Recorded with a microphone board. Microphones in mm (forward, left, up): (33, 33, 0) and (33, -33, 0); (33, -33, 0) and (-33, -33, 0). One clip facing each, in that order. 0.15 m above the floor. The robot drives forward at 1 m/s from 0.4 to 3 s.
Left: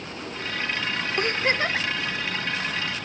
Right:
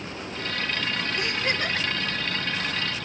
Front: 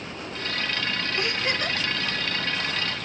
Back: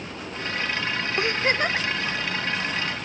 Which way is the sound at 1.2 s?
120° left.